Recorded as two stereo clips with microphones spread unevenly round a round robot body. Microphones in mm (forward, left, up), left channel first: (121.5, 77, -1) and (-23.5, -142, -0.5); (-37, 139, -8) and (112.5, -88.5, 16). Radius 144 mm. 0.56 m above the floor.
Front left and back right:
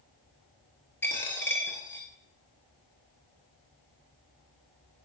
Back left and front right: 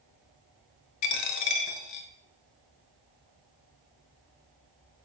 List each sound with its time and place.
1.0 s a dropped coin: 140° left, 0.8 m